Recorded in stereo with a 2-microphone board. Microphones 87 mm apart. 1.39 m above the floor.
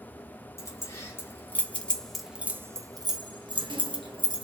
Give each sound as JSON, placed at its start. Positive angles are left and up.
{"t": 0.6, "sound": "keys jangling", "side_deg": 35, "distance_m": 1.5}